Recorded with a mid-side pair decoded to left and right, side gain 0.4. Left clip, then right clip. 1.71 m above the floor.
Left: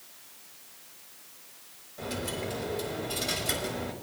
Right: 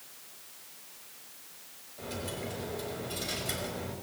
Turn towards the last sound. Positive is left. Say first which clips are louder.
# left 4 dB
turn(degrees=50)